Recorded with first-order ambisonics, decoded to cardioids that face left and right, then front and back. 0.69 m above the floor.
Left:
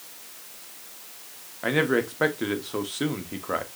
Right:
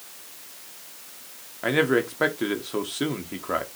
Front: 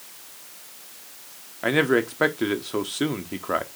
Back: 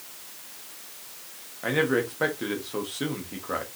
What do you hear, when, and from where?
1.6 s a man speaking: 5° right, 0.7 m